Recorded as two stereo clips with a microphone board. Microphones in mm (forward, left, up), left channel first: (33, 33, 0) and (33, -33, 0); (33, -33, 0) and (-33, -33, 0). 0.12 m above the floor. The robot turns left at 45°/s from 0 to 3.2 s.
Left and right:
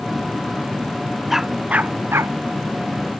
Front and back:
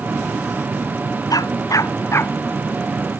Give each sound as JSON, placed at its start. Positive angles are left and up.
{"t": 1.3, "sound": "a dog barking", "azimuth_deg": -5}